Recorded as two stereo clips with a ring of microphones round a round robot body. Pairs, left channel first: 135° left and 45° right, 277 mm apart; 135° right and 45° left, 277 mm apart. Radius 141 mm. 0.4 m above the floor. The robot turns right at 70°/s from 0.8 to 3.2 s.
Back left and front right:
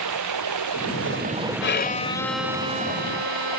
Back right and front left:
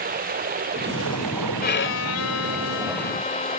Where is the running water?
15° right; by 3.6 s 155° left.